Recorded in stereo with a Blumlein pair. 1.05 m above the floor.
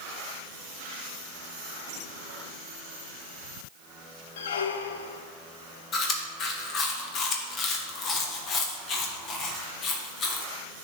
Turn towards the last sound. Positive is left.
turn(degrees=30)